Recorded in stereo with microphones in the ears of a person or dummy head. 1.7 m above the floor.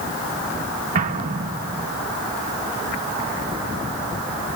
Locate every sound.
0.9 s an explosion: 40° right (ahead or behind), 1.7 m